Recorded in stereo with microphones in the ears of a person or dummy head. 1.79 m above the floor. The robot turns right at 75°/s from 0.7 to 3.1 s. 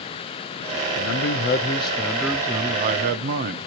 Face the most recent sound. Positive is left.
turn(degrees=-115)